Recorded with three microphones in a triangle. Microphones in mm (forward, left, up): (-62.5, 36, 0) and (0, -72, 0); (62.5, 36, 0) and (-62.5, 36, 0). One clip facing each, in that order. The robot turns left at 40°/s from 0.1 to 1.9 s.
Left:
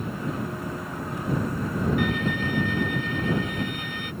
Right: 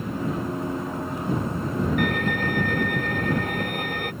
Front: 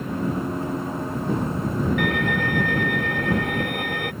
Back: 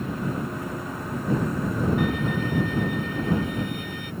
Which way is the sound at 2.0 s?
25° right.